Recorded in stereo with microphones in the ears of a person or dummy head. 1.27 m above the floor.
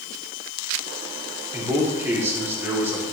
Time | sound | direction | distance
1.5 | a man speaking | 10° right (ahead or behind) | 4.5 m